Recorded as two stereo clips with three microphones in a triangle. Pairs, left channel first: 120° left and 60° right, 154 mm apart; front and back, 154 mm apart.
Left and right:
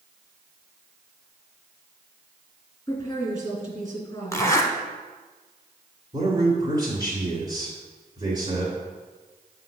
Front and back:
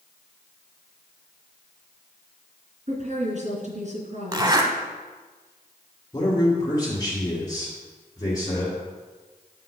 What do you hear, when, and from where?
2.9 s a woman speaking: straight behind, 2.5 m
4.3 s a zipper: 165° left, 0.8 m
6.1 s a man speaking: 30° right, 1.8 m